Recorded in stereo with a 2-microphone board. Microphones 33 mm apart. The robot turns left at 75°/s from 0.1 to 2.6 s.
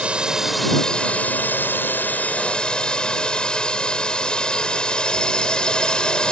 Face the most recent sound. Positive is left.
turn(degrees=25)